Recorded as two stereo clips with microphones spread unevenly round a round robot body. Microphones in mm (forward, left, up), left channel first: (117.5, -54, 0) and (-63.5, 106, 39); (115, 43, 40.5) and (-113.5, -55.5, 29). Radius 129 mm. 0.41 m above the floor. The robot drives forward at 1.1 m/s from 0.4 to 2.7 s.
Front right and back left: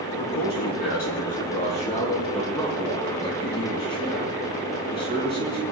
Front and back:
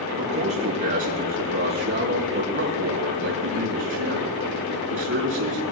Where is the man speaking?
90° right, 6 m; by 5.6 s 115° right, 6.5 m.